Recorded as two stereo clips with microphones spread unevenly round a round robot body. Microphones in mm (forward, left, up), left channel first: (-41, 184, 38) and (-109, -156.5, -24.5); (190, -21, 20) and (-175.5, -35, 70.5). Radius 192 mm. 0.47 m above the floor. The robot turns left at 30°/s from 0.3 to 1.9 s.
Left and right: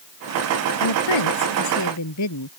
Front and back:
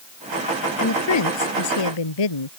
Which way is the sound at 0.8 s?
60° left.